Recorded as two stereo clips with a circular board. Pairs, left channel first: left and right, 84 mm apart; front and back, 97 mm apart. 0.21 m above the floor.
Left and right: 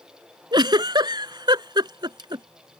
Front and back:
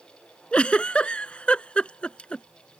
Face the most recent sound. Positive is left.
turn(degrees=-80)